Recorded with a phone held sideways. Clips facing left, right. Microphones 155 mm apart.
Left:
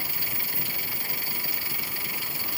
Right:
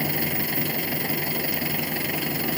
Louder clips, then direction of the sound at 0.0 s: Right 13 dB; 65° right (ahead or behind).